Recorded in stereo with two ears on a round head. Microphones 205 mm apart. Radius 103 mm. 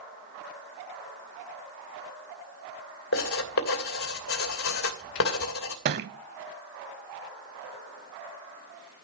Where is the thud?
45° right (ahead or behind), 0.7 m.